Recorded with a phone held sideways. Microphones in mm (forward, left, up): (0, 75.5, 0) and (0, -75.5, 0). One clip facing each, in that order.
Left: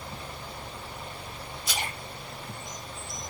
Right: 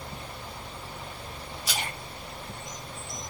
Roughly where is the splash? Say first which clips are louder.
Even; right.